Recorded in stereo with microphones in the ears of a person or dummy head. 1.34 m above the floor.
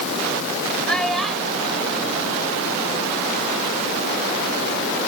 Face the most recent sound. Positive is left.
turn(degrees=-5)  # may be behind; listen again after turning